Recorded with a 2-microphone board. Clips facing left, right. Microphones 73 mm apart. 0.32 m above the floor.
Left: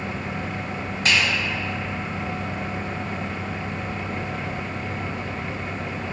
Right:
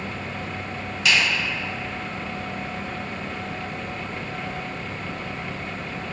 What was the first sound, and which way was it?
A finger snap, 40° left (ahead or behind).